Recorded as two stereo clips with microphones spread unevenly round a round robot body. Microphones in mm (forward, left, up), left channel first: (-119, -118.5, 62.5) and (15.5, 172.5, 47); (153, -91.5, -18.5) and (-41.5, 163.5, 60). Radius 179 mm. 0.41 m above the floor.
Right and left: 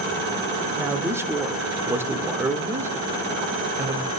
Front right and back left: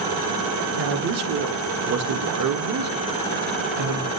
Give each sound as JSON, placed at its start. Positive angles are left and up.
{"t": 0.8, "sound": "a man speaking", "azimuth_deg": 140, "distance_m": 0.8}